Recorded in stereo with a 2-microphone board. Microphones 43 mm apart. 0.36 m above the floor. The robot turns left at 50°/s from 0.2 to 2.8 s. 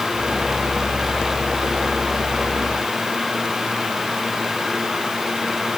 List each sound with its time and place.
Only background noise.